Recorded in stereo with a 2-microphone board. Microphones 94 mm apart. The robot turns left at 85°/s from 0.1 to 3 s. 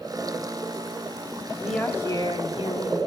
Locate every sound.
1.6 s a woman speaking: 170° right, 7.5 m; by 3.0 s 70° left, 7.5 m